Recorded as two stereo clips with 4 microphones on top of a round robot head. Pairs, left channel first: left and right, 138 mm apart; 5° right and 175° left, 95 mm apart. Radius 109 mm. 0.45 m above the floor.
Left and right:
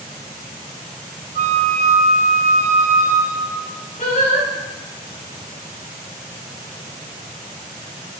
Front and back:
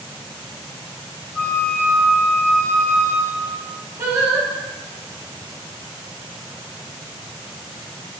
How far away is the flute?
About 1.4 m.